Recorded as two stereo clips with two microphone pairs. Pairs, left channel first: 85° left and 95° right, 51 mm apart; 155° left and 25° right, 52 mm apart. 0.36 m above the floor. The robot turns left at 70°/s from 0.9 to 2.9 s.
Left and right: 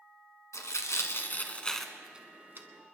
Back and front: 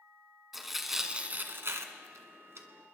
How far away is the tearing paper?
About 1.3 m.